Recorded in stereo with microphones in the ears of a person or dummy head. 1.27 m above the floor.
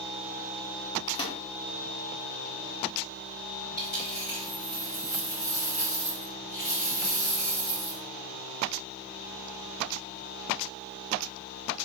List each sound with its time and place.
1.1 s a microwave: 25° left (ahead or behind), 0.8 m
3.8 s a dropped coin: 40° left (ahead or behind), 1.8 m